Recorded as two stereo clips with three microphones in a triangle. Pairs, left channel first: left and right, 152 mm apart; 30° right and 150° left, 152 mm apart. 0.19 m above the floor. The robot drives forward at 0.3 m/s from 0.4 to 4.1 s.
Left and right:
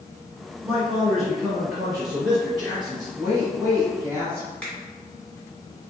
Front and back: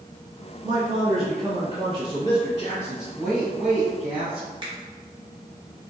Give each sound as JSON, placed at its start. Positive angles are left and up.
{"t": 0.6, "sound": "a man speaking", "azimuth_deg": -165, "distance_m": 1.4}
{"t": 3.2, "sound": "a woman speaking", "azimuth_deg": -120, "distance_m": 1.3}
{"t": 4.6, "sound": "a finger snap", "azimuth_deg": 170, "distance_m": 1.4}